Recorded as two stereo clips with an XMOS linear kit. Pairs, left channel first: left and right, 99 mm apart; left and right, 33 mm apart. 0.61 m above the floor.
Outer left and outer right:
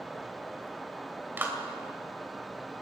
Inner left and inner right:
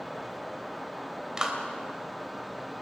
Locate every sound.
1.4 s a clap: 20° right (ahead or behind), 3 m